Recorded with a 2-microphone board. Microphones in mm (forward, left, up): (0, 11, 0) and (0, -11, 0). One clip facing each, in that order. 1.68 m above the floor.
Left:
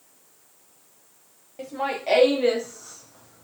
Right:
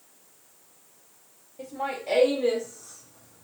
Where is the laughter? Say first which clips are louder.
Left 4 dB; 60° left (ahead or behind), 1.5 m; by 3.5 s 25° left (ahead or behind), 0.6 m.